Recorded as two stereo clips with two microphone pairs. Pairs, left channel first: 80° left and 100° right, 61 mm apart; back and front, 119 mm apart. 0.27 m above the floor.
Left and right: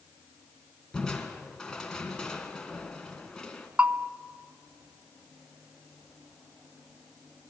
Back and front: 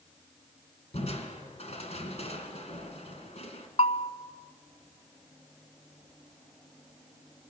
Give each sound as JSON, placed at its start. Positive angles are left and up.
{"t": 0.9, "sound": "crushing", "azimuth_deg": 160, "distance_m": 2.0}
{"t": 3.8, "sound": "a bell", "azimuth_deg": -165, "distance_m": 0.7}